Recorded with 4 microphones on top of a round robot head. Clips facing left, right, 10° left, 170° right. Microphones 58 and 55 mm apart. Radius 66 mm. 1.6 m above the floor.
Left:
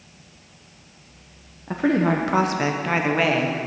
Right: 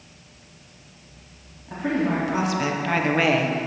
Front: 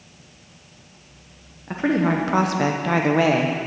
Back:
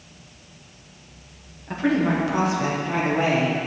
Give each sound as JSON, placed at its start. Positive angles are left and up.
{"t": 1.7, "sound": "a woman speaking", "azimuth_deg": 80, "distance_m": 1.1}